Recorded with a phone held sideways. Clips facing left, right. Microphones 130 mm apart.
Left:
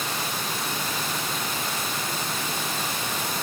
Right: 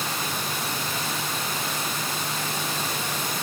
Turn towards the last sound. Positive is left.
No sound to turn to.